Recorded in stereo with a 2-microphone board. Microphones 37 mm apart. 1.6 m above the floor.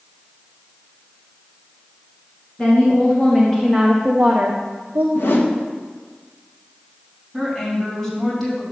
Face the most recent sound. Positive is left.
turn(degrees=5)  # may be behind; listen again after turning